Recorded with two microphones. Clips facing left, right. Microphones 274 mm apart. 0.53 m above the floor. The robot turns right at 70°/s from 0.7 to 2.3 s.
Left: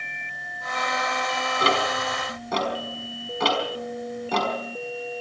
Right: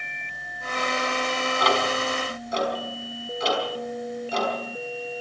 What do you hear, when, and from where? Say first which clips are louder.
1.6 s ticking: even; 30° left (ahead or behind), 5 m; by 4.5 s 75° left (ahead or behind), 5 m